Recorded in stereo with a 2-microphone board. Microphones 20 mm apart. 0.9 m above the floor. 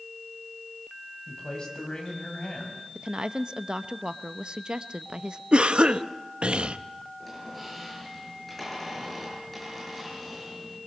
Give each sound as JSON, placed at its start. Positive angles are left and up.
{"t": 1.3, "sound": "a man speaking", "side_deg": 45, "distance_m": 5.5}
{"t": 3.0, "sound": "a woman speaking", "side_deg": -50, "distance_m": 0.8}
{"t": 5.5, "sound": "a cough", "side_deg": -65, "distance_m": 0.8}
{"t": 7.2, "sound": "a squeak", "side_deg": 10, "distance_m": 8.0}